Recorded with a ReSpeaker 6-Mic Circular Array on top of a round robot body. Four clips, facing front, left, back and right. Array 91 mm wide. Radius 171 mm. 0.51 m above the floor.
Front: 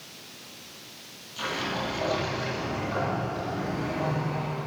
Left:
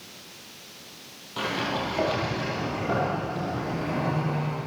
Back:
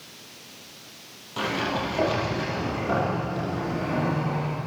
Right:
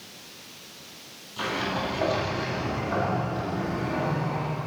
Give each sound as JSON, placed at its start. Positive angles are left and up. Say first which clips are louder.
{"t": 1.4, "sound": "a sliding door", "louder": "even, back 4 dB", "azimuth_deg": 140, "distance_m": 9.5}